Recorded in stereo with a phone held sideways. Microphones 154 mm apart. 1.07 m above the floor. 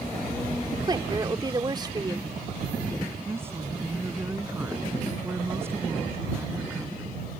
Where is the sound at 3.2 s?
15° right (ahead or behind).